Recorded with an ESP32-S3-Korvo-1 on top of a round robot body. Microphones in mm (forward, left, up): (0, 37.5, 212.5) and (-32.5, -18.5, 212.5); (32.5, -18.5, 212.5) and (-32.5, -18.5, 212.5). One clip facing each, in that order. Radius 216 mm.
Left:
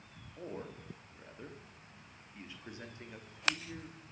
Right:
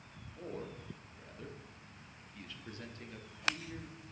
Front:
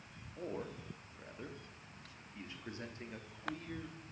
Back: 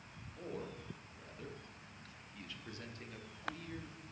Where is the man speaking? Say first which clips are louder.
Even, front 2 dB; 15° left, 1.1 m.